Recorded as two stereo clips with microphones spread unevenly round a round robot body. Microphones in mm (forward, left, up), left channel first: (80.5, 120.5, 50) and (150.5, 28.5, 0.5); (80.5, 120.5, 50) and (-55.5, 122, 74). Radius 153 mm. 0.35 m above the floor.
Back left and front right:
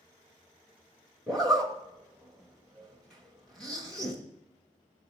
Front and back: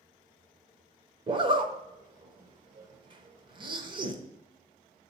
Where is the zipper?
125° right, 0.7 m.